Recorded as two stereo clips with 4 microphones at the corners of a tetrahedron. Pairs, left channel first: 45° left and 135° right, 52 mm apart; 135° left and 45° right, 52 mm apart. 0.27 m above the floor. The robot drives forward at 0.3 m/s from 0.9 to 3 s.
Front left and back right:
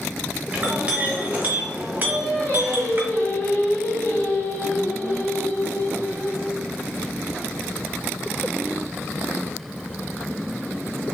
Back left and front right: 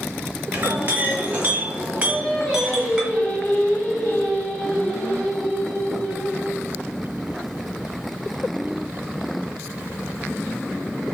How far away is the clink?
About 1.3 m.